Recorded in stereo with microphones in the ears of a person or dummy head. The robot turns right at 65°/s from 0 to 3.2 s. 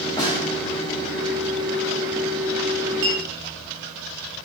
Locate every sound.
0.2 s a snare drum: 15° left (ahead or behind), 0.6 m; by 0.4 s 30° left (ahead or behind), 0.6 m
3.0 s a clink: 65° right (ahead or behind), 0.9 m; by 3.2 s 60° right (ahead or behind), 0.9 m